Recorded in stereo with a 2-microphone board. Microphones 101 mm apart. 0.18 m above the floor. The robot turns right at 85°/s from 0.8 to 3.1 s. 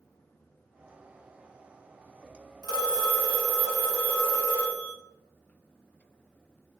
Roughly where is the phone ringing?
Left.